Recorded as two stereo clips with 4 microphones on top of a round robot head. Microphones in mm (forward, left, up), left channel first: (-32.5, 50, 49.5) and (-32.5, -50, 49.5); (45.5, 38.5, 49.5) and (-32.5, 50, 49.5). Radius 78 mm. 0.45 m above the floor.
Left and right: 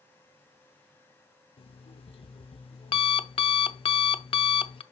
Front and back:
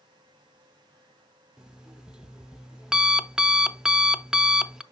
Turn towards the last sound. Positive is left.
turn(degrees=90)